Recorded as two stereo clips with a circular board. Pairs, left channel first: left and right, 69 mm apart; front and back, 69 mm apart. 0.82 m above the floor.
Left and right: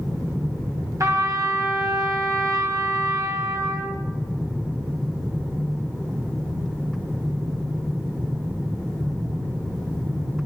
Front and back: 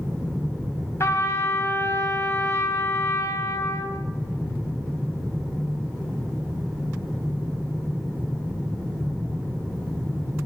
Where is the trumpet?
50° right, 3 m.